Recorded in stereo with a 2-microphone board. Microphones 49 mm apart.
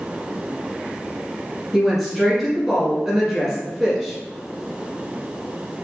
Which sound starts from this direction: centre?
A woman speaking, at 1.7 s.